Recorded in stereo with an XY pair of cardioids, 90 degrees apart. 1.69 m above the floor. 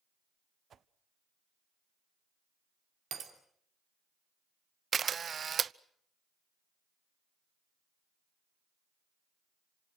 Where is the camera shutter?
50° right, 0.6 m.